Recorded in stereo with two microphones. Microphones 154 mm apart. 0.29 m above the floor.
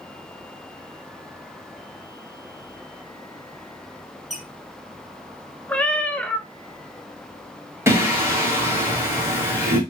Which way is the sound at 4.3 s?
Centre (ahead or behind).